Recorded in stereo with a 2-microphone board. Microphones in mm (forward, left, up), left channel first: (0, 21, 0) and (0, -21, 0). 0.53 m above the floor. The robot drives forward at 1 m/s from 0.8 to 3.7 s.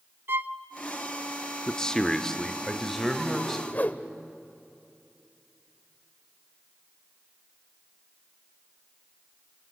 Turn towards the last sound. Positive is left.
turn(degrees=40)  # may be behind; listen again after turning